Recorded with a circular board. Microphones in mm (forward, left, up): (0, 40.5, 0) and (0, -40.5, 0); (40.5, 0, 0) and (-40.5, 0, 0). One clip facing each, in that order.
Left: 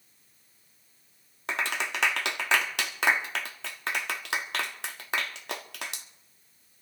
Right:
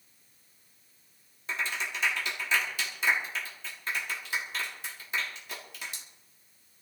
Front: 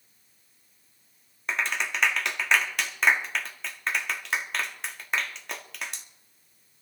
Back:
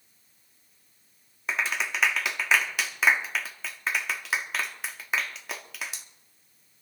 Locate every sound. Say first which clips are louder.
1.5 s a clap: left 3 dB, even; 95° left, 1.2 m